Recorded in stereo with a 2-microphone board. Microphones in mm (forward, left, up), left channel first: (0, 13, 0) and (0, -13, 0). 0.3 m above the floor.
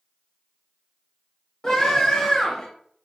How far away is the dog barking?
No dog barking in this recording.